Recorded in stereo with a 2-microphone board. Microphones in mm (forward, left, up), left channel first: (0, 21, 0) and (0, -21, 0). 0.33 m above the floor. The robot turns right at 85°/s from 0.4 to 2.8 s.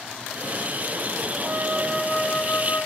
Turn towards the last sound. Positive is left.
turn(degrees=60)